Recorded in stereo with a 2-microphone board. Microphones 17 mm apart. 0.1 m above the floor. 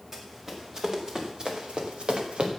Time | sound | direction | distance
0.1 | running footsteps | 30° right (ahead or behind) | 4 m